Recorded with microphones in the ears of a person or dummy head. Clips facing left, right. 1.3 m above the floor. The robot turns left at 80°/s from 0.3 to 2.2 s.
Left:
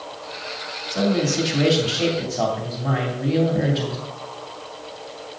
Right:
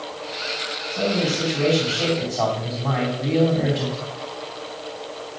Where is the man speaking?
110° left, 2.5 m; by 4.0 s 10° left, 2.5 m.